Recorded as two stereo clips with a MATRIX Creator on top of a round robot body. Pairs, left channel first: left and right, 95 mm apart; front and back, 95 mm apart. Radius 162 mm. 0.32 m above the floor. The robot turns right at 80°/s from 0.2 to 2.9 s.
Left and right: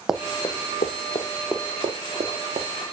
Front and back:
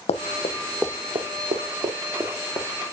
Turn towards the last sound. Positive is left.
turn(degrees=-35)